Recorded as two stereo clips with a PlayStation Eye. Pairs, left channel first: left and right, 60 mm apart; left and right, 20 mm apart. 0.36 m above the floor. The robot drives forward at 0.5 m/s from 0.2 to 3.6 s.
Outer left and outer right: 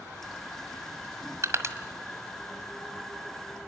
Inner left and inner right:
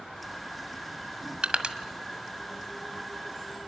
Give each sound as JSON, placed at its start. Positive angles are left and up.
{"t": 1.4, "sound": "crushing", "side_deg": -55, "distance_m": 1.7}